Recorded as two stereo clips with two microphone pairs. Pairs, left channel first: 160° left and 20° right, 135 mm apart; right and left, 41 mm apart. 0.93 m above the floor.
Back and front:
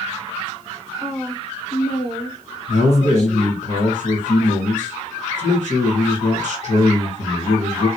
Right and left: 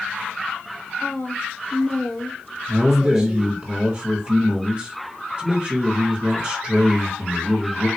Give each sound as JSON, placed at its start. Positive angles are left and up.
{"t": 1.0, "sound": "a woman speaking", "azimuth_deg": -120, "distance_m": 1.5}
{"t": 2.7, "sound": "a man speaking", "azimuth_deg": 155, "distance_m": 1.5}